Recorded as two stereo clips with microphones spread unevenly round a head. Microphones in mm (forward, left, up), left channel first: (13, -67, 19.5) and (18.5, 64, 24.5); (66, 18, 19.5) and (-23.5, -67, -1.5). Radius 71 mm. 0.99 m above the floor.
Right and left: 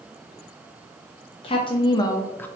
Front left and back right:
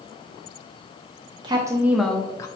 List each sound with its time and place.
1.4 s a woman speaking: 120° right, 0.5 m; by 2.5 s 20° right, 0.5 m